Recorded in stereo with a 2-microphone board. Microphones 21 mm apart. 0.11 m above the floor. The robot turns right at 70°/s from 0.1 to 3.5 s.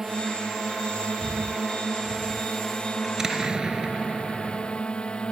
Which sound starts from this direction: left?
Breathing, at 1.2 s.